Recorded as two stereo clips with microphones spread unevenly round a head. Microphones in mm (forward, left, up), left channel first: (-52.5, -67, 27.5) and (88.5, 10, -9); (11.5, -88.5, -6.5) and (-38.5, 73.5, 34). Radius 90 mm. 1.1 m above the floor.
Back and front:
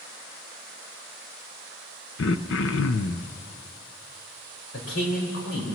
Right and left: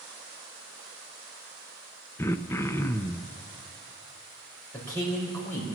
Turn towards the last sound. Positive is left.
turn(degrees=-150)